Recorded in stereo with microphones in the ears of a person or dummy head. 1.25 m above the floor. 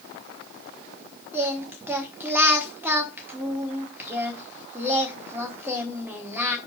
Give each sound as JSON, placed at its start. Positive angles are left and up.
{"t": 1.3, "sound": "singing", "side_deg": -10, "distance_m": 1.2}